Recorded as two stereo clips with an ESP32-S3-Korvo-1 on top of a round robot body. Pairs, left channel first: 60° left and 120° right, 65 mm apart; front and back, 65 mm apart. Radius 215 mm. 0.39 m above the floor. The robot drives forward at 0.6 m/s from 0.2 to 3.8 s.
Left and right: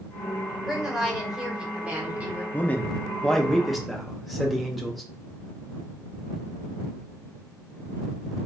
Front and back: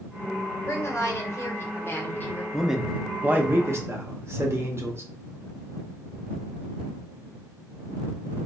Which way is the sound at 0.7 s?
35° right.